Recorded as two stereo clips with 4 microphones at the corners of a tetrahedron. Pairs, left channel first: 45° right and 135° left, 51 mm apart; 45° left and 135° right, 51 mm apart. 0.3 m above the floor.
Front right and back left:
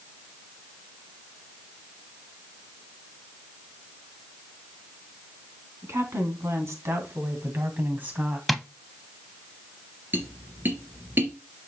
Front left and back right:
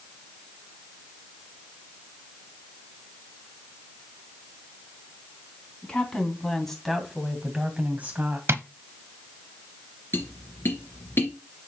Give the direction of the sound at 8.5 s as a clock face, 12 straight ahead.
5 o'clock.